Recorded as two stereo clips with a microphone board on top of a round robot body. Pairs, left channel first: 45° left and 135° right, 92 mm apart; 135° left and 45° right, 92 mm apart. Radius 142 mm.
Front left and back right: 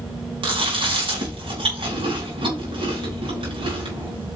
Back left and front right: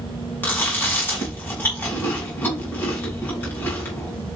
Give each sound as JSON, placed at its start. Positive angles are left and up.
{"t": 0.4, "sound": "chewing", "azimuth_deg": -155, "distance_m": 4.5}